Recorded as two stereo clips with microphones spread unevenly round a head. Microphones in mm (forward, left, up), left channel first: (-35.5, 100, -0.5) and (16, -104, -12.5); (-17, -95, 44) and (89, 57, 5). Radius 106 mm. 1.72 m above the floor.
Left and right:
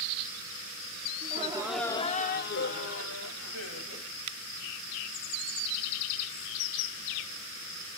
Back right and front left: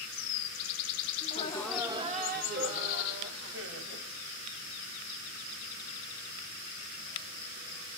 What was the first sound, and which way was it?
Laughter, 110° right.